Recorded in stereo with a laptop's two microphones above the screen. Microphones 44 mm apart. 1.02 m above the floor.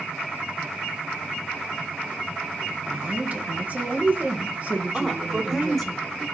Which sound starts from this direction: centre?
A woman speaking, at 4.9 s.